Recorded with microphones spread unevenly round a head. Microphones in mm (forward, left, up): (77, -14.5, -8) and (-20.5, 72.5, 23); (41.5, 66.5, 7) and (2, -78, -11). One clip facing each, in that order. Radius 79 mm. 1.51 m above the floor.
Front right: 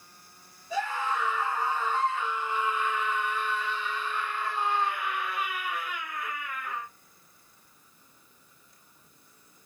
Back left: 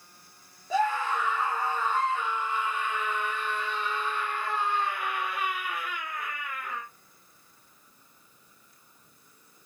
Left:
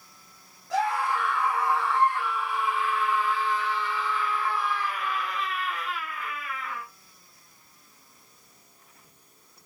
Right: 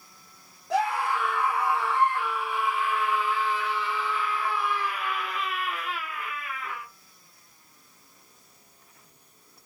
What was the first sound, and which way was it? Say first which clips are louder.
A scream: back left 4 dB, even; straight behind.